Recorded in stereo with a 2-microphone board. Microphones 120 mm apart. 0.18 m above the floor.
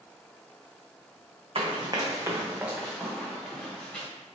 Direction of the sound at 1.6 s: 55° right (ahead or behind).